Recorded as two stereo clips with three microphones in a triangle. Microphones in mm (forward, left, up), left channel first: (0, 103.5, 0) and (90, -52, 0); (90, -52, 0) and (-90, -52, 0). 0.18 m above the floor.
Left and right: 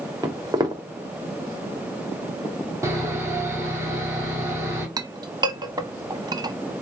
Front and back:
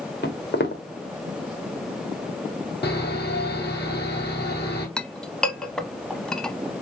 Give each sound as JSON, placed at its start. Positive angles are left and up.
{"t": 0.2, "sound": "footsteps", "azimuth_deg": 10, "distance_m": 1.9}
{"t": 2.8, "sound": "sawing", "azimuth_deg": 15, "distance_m": 2.5}
{"t": 5.0, "sound": "a clink", "azimuth_deg": -80, "distance_m": 0.6}